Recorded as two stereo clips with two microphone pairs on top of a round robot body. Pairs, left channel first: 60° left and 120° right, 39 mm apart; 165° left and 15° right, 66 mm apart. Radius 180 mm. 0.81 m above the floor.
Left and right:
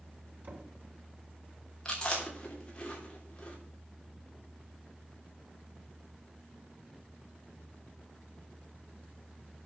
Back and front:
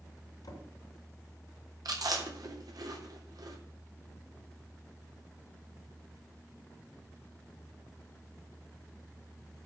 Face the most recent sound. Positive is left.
turn(degrees=-10)